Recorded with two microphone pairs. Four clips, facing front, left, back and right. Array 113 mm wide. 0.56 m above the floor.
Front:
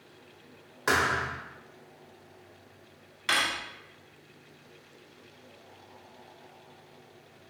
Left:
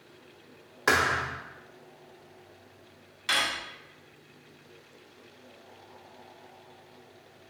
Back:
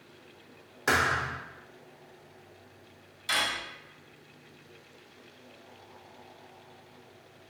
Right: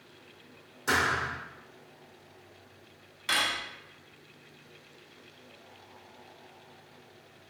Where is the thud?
75° left, 1.0 m.